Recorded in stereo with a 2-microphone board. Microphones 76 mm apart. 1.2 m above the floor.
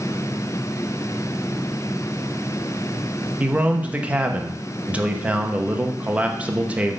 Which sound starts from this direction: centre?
A man speaking, at 3.4 s.